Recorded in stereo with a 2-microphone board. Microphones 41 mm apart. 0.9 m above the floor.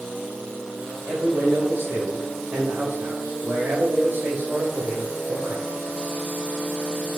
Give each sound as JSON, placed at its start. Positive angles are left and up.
{"t": 1.1, "sound": "a man speaking", "side_deg": -65, "distance_m": 3.0}